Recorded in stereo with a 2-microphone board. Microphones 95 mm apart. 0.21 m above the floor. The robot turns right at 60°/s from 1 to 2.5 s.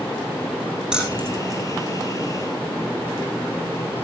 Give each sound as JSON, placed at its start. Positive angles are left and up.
{"t": 0.9, "sound": "keys jangling", "side_deg": -10, "distance_m": 7.5}